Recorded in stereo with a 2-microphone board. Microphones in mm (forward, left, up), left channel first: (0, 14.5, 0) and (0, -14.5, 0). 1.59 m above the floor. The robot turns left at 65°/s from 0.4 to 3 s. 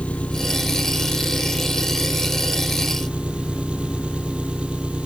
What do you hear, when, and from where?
0.0 s an engine running: 130° left; by 5.1 s 40° right